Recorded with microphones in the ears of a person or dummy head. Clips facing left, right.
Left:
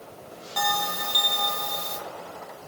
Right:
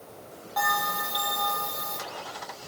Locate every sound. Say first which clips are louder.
0.6 s a bell: left 1 dB; 45° left (ahead or behind), 5 m